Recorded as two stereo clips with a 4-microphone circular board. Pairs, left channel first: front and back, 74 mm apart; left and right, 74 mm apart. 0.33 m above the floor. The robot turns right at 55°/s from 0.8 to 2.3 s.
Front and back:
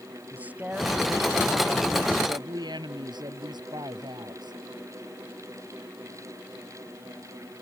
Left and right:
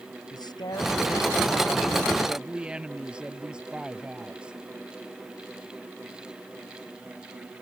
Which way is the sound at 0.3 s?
110° left.